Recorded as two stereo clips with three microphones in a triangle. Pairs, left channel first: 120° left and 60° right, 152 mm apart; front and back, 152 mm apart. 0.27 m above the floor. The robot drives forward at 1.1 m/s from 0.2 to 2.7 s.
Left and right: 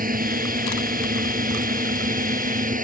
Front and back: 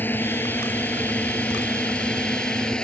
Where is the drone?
80° right; by 2.9 s 85° right.